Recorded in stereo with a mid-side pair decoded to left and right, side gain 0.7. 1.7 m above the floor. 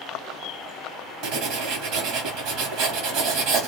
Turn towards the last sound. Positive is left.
turn(degrees=-65)